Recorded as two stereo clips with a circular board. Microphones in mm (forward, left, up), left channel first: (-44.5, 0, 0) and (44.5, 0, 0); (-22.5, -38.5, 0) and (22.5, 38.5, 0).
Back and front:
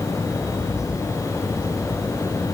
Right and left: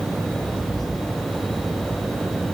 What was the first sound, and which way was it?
Only background noise.